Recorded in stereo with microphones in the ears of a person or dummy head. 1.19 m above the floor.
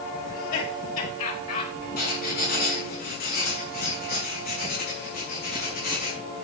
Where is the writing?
50° left (ahead or behind), 6 m.